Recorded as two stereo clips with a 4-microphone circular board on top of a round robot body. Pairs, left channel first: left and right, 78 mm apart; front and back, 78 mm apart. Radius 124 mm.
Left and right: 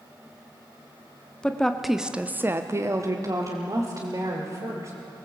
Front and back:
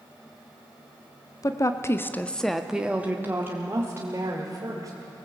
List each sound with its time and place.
1.4 s a woman speaking: 15° left, 1.7 m; by 4.9 s 135° right, 3.5 m